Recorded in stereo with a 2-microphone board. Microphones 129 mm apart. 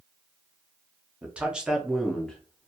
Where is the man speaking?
10° right (ahead or behind), 0.8 m; by 2.7 s 10° left (ahead or behind), 0.6 m.